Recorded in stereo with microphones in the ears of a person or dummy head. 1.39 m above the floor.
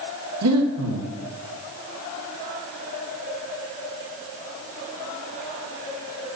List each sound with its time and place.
0.4 s breathing: 80° right, 2 m